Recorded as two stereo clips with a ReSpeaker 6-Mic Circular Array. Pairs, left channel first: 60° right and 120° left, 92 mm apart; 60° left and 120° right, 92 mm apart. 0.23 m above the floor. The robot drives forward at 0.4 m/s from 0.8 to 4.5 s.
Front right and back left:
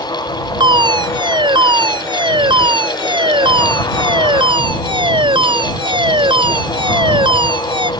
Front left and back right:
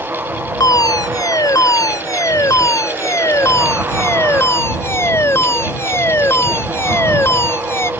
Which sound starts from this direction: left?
A fire alarm, at 0.6 s.